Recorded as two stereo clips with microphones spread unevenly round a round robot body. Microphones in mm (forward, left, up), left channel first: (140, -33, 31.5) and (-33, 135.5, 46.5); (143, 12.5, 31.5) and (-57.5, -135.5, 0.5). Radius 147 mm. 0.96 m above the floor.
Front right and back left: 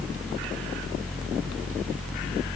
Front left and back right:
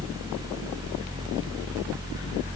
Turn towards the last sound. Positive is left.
No sound to turn to.